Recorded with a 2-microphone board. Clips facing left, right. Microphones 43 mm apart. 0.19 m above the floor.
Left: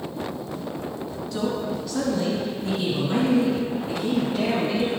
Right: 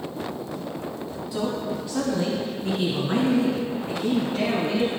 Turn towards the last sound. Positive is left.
turn(degrees=-55)  # may be behind; listen again after turning